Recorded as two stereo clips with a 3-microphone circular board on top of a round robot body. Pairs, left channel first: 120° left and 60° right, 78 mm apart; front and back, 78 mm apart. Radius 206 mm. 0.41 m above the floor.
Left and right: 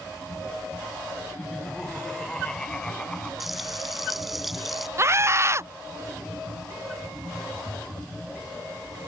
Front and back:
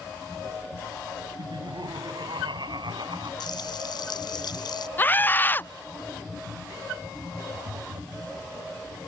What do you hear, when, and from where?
1.4 s laughter: 160° right
3.4 s frying: 30° left
5.0 s a scream: 45° right
7.5 s tapping: 170° left